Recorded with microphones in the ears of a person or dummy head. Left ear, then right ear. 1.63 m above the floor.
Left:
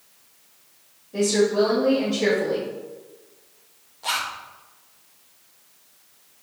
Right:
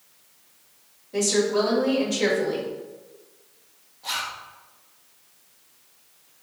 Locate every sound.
1.1 s a woman speaking: 45° right (ahead or behind), 1.9 m
4.0 s a zipper: 40° left (ahead or behind), 0.6 m